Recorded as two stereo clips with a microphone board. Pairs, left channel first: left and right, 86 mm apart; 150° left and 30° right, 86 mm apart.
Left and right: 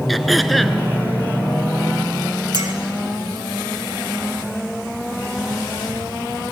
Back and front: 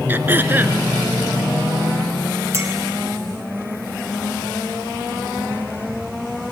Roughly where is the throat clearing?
Ahead.